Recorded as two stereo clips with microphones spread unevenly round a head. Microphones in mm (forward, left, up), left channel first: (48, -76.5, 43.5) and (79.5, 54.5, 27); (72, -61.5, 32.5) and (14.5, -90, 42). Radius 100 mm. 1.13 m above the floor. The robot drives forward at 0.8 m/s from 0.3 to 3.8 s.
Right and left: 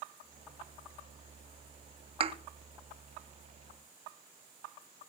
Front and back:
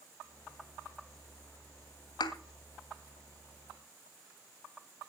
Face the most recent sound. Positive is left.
turn(degrees=55)